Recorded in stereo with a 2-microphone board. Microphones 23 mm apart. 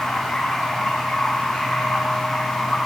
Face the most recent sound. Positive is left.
turn(degrees=65)  # may be behind; listen again after turning